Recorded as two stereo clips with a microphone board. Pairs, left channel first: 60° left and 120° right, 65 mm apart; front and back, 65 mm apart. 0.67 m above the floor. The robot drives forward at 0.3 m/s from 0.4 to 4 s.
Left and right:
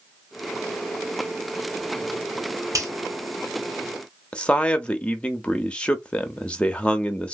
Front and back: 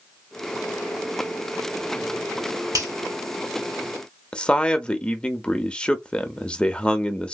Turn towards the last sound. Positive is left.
turn(degrees=35)